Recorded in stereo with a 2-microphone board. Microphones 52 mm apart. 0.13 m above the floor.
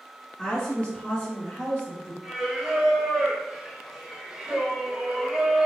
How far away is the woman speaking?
About 1.5 m.